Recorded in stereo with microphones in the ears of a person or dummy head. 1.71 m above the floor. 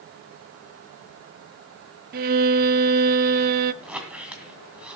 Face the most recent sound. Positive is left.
turn(degrees=-5)  # may be behind; listen again after turning